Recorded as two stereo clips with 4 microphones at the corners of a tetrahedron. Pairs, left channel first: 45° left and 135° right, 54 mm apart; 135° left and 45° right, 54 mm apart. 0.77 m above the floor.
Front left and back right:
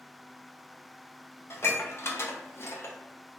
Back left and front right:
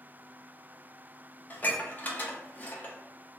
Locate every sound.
1.5 s dishes clattering: 80° left, 0.5 m